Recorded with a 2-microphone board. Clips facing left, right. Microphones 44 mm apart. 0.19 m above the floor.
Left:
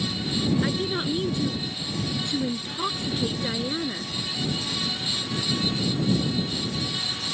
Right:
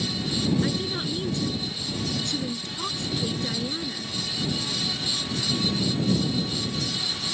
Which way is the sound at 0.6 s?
20° left (ahead or behind).